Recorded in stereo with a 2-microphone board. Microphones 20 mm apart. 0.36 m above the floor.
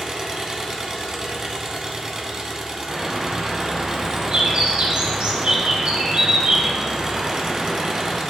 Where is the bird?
60° right (ahead or behind), 2 m.